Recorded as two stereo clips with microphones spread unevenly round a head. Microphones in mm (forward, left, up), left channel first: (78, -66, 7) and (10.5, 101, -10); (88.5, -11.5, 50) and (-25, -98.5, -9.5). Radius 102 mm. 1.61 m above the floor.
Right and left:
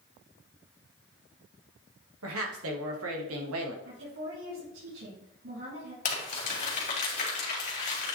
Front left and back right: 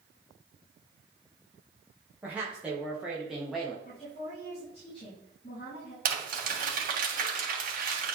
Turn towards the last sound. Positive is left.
turn(degrees=-115)